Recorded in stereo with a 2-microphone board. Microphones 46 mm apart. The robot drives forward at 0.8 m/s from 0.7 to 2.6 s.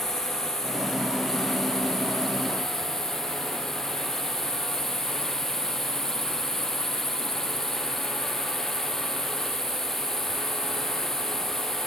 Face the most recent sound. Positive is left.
turn(degrees=10)  # may be behind; listen again after turning